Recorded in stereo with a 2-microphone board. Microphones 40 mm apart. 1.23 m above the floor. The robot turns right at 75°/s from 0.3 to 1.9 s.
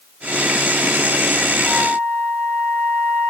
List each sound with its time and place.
1.6 s a flute: 50° left (ahead or behind), 1.3 m; by 3.3 s 60° left (ahead or behind), 1.3 m